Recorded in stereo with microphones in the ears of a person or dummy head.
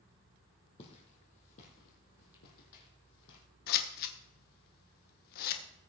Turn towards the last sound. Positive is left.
turn(degrees=55)  # may be behind; listen again after turning